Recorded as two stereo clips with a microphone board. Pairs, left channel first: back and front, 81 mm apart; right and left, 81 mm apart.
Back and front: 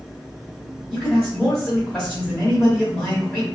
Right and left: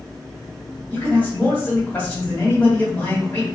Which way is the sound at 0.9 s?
120° right.